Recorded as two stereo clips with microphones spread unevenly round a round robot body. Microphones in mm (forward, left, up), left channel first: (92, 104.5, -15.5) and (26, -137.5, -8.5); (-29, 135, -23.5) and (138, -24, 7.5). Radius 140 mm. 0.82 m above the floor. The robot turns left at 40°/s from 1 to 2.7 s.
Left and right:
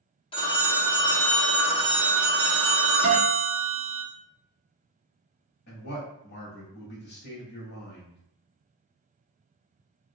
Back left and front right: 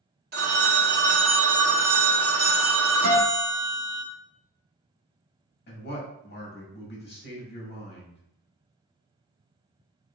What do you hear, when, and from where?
0.3 s a phone ringing: 5° left, 0.7 m; by 4.0 s 65° right, 0.7 m
3.0 s a guitar: 65° right, 0.9 m
5.7 s a man speaking: 120° left, 1.0 m